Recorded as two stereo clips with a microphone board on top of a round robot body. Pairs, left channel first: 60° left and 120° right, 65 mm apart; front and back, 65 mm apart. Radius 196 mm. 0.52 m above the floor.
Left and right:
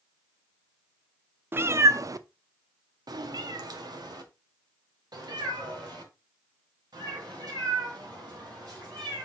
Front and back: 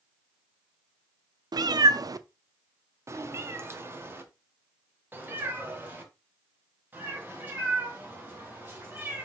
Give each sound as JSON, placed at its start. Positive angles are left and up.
{"t": 1.5, "sound": "a cat meowing", "azimuth_deg": 180, "distance_m": 0.6}